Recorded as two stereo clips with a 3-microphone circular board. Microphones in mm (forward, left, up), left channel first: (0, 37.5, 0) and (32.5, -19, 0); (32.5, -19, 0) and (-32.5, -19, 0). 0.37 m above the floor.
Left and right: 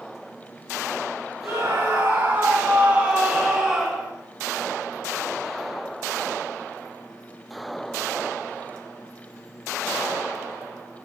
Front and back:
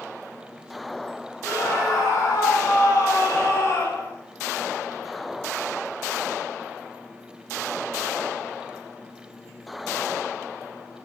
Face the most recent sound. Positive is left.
turn(degrees=35)